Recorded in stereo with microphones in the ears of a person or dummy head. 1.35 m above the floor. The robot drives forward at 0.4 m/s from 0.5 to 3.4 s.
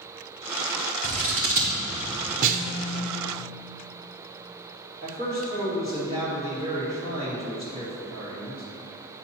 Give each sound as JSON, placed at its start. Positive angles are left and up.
{"t": 1.0, "sound": "scissors", "side_deg": -45, "distance_m": 1.2}
{"t": 2.4, "sound": "a snare drum", "side_deg": -50, "distance_m": 0.8}
{"t": 5.0, "sound": "a man speaking", "side_deg": -25, "distance_m": 2.0}